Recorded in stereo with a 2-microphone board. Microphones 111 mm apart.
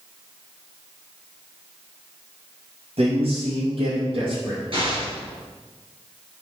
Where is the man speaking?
65° right (ahead or behind), 3 m; by 4.6 s 50° right (ahead or behind), 3 m.